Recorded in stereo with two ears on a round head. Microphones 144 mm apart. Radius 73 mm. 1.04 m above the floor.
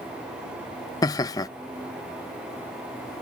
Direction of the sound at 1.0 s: 20° left (ahead or behind).